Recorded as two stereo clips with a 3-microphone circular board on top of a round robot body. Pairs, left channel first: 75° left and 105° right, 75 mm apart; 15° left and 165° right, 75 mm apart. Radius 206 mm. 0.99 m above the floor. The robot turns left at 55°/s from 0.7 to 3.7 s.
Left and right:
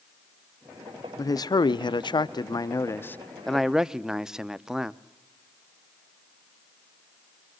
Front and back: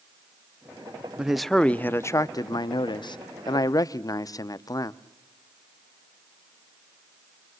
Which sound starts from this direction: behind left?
A man speaking, at 1.2 s.